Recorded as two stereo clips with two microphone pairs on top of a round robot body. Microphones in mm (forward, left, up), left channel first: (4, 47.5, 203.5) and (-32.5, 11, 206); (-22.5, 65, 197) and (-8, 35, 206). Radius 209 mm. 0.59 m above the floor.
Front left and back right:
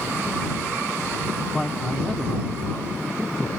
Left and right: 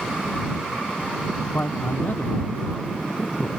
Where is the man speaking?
125° left.